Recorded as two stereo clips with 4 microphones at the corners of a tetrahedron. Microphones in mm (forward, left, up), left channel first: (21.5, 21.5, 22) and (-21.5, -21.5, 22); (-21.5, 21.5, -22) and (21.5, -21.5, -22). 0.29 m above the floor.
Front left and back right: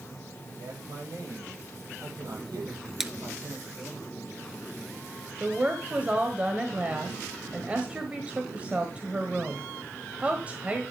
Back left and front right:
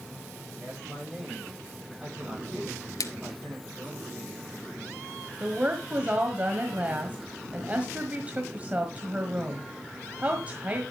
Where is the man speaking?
125° right, 8.5 m.